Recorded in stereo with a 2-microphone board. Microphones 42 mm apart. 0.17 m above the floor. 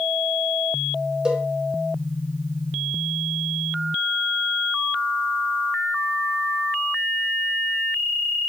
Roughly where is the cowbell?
Centre.